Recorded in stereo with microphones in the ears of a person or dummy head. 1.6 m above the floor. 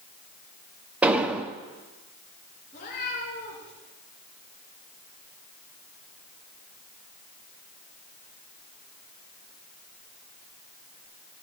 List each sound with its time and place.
1.0 s an explosion: 5° right (ahead or behind), 0.8 m
2.7 s a cat meowing: 45° left (ahead or behind), 4.5 m